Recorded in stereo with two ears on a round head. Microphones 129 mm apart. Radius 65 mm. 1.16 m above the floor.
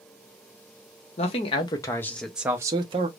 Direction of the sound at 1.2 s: 45° left (ahead or behind).